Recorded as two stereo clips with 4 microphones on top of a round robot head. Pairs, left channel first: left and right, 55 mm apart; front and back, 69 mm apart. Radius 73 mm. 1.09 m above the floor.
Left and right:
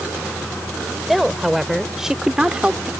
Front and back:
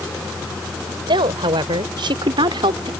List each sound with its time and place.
1.1 s a woman speaking: straight behind; by 2.9 s 165° right